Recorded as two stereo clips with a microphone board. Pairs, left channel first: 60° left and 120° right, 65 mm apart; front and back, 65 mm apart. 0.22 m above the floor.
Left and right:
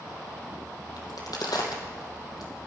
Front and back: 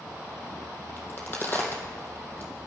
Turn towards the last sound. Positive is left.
turn(degrees=60)